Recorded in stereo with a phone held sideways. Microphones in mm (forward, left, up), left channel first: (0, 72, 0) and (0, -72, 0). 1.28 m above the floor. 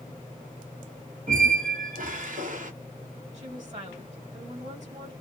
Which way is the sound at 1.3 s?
65° right (ahead or behind).